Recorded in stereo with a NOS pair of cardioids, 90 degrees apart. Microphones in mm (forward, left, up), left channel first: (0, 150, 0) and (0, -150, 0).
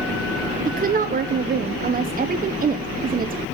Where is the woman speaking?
30° right, 0.7 m.